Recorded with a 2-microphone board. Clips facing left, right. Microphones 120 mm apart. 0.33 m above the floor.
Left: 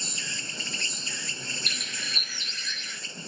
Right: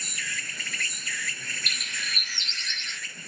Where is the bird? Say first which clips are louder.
Even; 70° right (ahead or behind).